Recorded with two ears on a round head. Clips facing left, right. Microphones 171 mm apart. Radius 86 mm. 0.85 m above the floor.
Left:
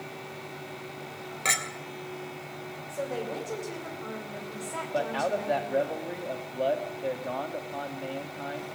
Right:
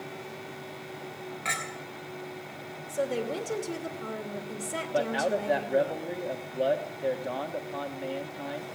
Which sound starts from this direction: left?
A clink, at 1.4 s.